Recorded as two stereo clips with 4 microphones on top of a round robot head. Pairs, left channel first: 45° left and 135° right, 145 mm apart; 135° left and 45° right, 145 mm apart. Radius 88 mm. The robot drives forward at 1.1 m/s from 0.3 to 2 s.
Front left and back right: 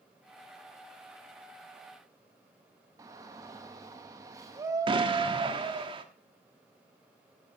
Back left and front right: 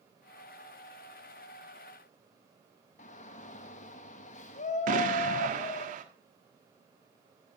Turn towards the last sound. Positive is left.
turn(degrees=-80)